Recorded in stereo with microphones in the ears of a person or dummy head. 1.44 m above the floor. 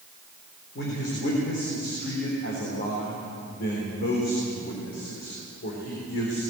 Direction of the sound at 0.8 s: 60° left (ahead or behind).